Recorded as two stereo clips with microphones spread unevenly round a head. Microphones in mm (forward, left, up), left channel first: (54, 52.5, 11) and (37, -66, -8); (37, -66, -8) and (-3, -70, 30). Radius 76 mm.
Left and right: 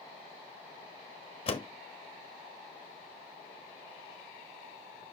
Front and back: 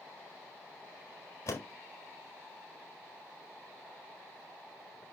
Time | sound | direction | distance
1.5 | a door slam | 45° left | 1.3 m